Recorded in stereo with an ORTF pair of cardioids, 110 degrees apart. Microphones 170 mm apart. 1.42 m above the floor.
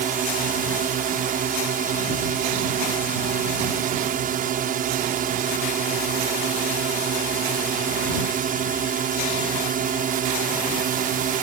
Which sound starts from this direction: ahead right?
A drone, at 0.0 s.